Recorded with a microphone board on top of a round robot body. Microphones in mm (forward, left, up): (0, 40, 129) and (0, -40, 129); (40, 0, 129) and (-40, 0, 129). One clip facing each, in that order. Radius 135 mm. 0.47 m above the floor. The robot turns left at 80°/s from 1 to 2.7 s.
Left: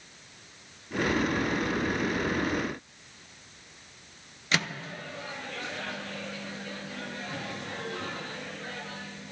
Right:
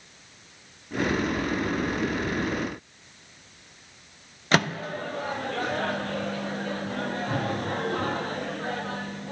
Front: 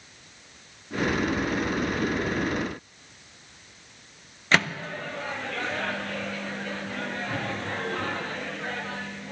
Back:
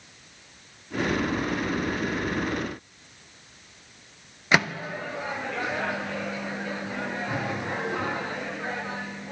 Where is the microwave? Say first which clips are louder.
Right 7 dB, back 1 dB; 105° right, 0.6 m.